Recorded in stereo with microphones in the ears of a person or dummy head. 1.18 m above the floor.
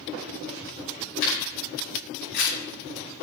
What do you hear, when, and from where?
1.2 s a camera shutter: 65° left (ahead or behind), 6 m